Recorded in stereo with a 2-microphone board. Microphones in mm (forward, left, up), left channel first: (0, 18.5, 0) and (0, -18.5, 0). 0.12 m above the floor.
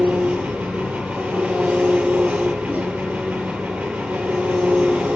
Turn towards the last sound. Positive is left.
turn(degrees=-50)  # may be behind; listen again after turning